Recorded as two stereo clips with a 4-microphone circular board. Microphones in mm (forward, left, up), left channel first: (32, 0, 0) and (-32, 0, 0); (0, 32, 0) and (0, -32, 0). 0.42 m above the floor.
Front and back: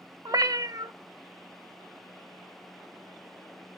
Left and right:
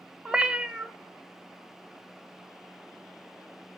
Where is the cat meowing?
165° right, 0.5 m.